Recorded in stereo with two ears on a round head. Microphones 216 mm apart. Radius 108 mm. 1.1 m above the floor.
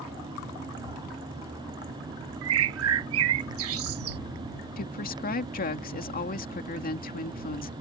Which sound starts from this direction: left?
A woman speaking, at 4.8 s.